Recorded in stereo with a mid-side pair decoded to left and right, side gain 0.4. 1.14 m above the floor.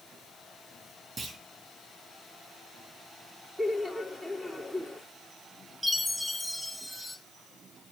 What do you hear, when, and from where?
1.2 s a clunk: 40° right, 4 m
3.6 s laughter: 5° right, 3.5 m
5.8 s a chime: 5° right, 2.5 m